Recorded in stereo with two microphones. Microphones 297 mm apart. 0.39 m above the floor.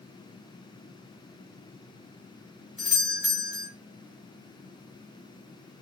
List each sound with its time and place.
2.8 s a doorbell: centre (ahead or behind), 1.2 m